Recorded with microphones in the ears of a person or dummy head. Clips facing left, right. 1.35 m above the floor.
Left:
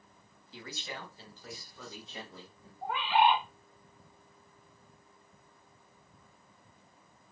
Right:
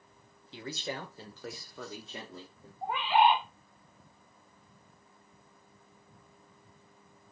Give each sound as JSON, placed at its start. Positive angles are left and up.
{"t": 0.5, "sound": "a man speaking", "side_deg": -20, "distance_m": 0.9}
{"t": 2.8, "sound": "a bird", "side_deg": -15, "distance_m": 0.9}